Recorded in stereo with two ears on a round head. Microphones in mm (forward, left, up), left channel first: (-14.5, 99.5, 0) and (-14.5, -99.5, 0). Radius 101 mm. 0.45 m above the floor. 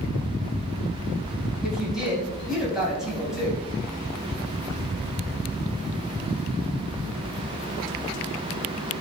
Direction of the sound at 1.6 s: Centre (ahead or behind).